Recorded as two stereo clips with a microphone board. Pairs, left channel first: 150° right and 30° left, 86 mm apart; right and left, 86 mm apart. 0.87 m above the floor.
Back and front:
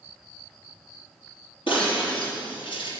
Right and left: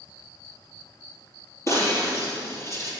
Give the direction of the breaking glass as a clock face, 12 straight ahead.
5 o'clock.